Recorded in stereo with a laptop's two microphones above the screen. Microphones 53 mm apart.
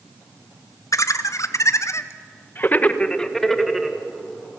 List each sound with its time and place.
0.9 s laughter: 70° left (ahead or behind), 1.8 m; by 4.0 s 10° right (ahead or behind), 1.5 m